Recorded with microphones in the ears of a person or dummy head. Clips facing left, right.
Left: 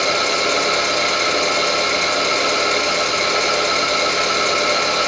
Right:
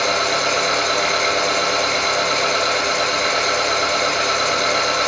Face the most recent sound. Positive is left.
turn(degrees=25)  # may be behind; listen again after turning